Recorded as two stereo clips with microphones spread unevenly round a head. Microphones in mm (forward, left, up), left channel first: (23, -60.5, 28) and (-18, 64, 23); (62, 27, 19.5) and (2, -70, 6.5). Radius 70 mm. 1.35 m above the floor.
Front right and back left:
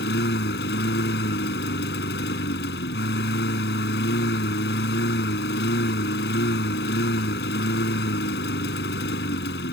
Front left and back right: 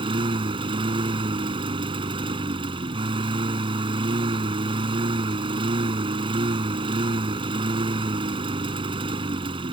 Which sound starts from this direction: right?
A lawn mower, at 0.0 s.